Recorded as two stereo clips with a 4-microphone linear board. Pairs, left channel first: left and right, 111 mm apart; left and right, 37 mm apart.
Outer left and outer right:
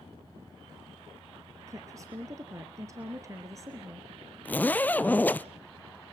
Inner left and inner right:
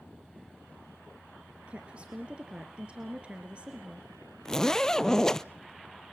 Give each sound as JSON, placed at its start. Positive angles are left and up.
{"t": 1.7, "sound": "a woman speaking", "side_deg": -30, "distance_m": 2.0}
{"t": 4.5, "sound": "a zipper", "side_deg": 15, "distance_m": 0.7}